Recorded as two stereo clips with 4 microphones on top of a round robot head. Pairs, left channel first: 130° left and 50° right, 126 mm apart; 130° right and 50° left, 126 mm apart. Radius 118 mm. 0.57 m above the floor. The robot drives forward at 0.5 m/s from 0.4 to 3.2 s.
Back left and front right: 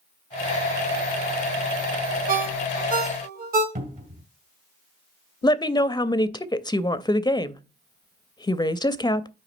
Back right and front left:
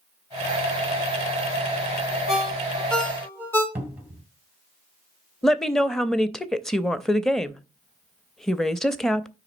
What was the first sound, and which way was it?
A ringtone, 40° right.